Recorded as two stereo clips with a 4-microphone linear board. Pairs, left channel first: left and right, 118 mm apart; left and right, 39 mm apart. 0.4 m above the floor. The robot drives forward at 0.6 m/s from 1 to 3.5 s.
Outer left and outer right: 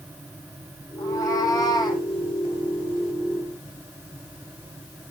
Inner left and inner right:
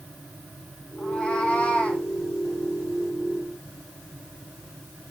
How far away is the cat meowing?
About 2.5 m.